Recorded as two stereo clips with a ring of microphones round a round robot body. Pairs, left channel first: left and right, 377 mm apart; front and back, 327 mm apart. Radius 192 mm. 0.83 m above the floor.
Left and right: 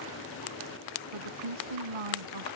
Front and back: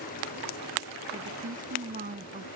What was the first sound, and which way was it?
A woman speaking, 110° right.